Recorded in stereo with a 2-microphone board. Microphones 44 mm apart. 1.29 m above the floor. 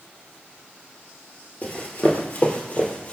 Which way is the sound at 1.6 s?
40° left (ahead or behind).